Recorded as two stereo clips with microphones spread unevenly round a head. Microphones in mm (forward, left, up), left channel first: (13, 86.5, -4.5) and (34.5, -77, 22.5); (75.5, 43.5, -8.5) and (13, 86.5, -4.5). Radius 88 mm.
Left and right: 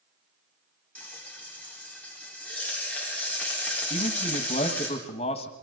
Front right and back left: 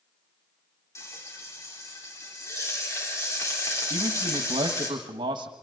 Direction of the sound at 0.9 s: 15° left.